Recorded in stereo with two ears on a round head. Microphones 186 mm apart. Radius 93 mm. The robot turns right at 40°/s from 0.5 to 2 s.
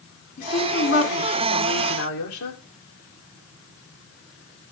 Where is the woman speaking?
40° left, 3.5 m; by 2.6 s 100° left, 3.5 m.